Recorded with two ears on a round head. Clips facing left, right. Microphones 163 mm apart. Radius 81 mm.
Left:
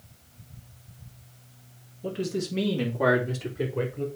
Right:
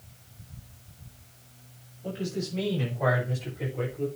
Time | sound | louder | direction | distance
2.0 | a man speaking | left 3 dB | 65° left (ahead or behind) | 4 m